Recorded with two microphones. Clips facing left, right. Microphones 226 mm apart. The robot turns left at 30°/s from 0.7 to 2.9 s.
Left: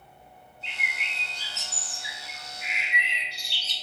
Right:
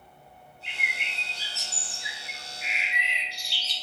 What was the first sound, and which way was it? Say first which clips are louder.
A bird: even; 175° right.